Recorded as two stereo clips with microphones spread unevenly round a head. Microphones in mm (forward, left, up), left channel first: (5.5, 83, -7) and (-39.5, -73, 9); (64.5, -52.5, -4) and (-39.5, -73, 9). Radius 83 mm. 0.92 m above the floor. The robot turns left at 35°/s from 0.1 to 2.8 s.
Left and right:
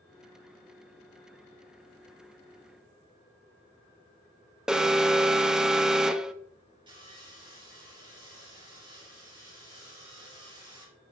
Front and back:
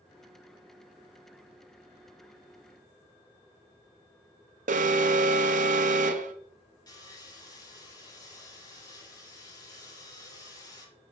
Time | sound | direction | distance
4.7 | an alarm | 165° left | 0.5 m
6.9 | sawing | 40° right | 3.5 m